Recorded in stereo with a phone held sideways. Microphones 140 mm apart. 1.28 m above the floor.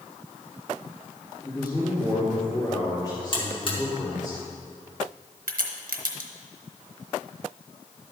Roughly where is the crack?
Right.